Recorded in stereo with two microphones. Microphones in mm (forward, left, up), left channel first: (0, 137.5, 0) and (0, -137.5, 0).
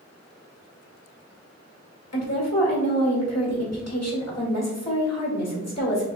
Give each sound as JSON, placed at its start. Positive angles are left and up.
{"t": 2.1, "sound": "a woman speaking", "side_deg": 65, "distance_m": 1.8}